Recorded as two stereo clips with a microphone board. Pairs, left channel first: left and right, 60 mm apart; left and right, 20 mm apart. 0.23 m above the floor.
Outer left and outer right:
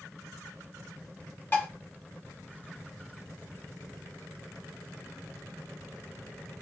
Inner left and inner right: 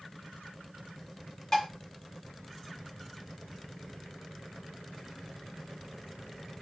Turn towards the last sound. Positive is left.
turn(degrees=30)  # may be behind; listen again after turning